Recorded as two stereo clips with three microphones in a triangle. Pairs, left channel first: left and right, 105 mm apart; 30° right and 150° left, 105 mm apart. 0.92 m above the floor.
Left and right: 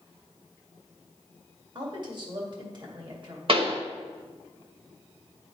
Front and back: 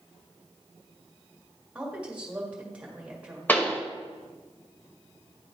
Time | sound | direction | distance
1.8 | a woman speaking | 130° right | 1.9 m
3.5 | a pop | 100° right | 1.0 m